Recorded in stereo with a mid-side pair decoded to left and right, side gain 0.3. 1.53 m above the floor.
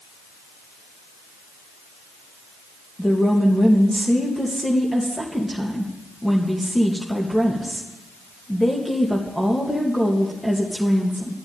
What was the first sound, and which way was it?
A woman speaking, 5° left.